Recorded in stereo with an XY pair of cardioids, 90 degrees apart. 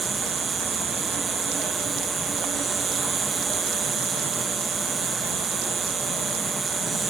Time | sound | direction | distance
0.0 | an insect | 55° right | ?